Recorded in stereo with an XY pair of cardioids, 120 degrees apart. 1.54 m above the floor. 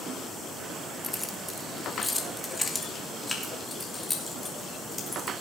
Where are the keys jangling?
5° left, 1.5 m; by 5.3 s 20° left, 4.5 m.